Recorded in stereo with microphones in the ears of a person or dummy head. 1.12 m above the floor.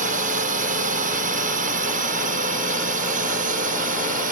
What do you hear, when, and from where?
0.0 s a drone: 45° right (ahead or behind)